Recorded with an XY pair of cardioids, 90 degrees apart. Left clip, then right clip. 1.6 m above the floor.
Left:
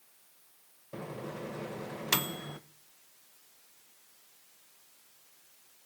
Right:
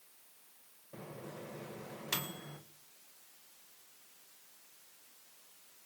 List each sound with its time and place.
0.9 s a microwave: 60° left, 1.4 m